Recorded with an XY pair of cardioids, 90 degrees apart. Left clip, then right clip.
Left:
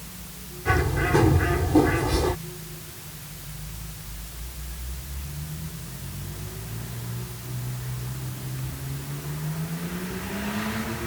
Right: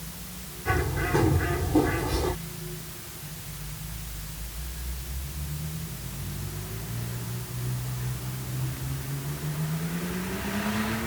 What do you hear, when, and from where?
0.7 s a bird: 35° left